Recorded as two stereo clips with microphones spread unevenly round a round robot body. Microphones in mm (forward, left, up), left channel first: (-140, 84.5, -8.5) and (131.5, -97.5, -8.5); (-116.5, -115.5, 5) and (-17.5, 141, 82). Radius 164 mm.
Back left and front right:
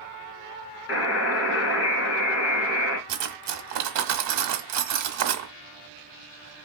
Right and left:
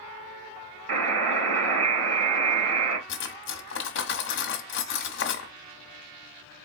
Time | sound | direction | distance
0.9 | a buzzer | 95° left | 1.9 m
3.1 | cutlery clinking | 75° right | 0.7 m